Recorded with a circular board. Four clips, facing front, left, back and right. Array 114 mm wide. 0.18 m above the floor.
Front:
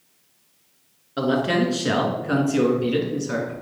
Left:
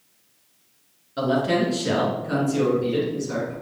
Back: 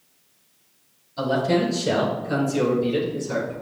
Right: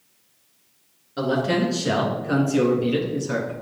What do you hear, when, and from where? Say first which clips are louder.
1.2 s a man speaking: left 1 dB, even; straight ahead, 2.5 m; by 3.5 s 50° right, 2.5 m